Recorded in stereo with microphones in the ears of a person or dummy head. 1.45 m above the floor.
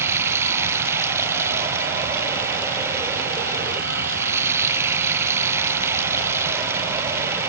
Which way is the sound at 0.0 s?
20° right (ahead or behind).